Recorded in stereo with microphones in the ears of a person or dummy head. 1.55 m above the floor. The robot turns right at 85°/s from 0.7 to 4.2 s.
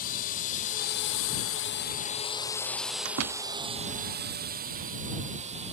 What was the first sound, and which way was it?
A drone, 50° left (ahead or behind).